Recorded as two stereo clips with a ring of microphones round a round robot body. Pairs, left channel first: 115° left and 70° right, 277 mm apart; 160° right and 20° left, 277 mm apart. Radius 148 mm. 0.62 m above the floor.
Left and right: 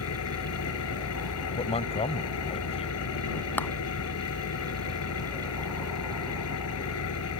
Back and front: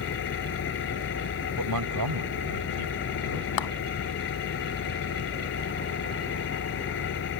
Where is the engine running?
150° left.